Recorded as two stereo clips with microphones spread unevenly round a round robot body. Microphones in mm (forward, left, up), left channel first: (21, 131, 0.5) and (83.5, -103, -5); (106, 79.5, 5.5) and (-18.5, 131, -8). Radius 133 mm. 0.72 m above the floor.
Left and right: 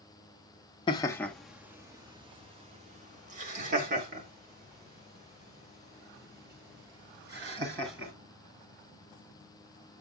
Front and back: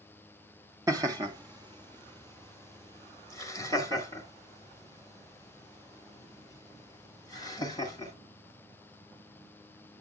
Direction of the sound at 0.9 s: 160° left.